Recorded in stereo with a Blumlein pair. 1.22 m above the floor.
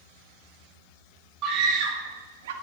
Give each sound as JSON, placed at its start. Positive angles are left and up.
{"t": 1.4, "sound": "a scream", "azimuth_deg": -35, "distance_m": 1.9}